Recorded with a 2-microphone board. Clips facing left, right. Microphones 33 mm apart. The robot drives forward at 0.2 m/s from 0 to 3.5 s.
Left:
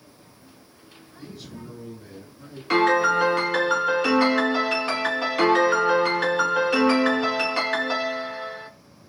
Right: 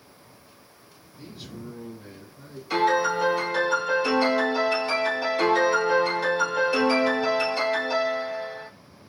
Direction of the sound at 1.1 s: 15° right (ahead or behind).